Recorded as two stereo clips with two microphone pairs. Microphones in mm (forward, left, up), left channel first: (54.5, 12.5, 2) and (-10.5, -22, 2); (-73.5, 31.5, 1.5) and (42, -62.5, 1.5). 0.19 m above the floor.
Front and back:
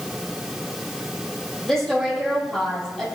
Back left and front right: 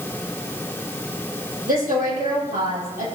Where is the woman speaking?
55° right, 7 m.